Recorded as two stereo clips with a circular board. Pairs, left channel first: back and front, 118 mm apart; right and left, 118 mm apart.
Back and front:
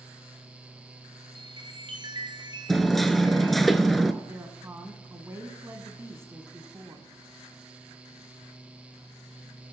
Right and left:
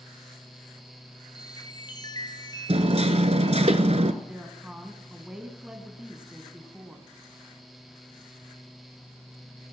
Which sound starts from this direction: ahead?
A woman speaking, at 4.2 s.